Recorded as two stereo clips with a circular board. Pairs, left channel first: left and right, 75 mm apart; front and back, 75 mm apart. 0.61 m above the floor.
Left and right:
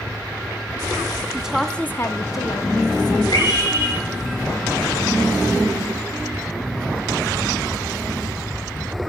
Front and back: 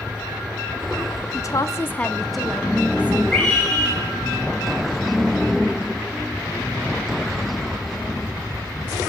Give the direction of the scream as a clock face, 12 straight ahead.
9 o'clock.